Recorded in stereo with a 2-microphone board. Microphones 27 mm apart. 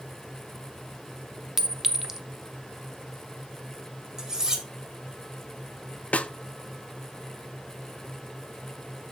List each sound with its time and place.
1.6 s a clink: 15° right (ahead or behind), 0.6 m
4.2 s cutlery clinking: 25° right (ahead or behind), 1.5 m
6.1 s a snare drum: 60° left (ahead or behind), 0.5 m